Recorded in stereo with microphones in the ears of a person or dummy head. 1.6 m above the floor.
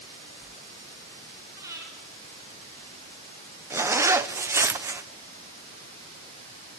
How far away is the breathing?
About 4.5 m.